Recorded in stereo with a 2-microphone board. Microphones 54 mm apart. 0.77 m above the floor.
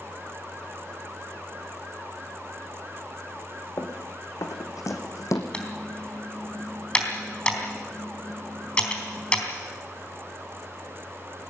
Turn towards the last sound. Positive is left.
turn(degrees=20)  # may be behind; listen again after turning